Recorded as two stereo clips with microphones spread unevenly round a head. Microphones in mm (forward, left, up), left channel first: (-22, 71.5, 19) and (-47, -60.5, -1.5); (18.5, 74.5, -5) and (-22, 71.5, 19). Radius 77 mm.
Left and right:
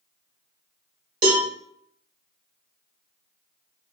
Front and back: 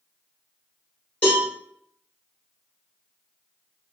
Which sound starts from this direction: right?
A cowbell, at 1.2 s.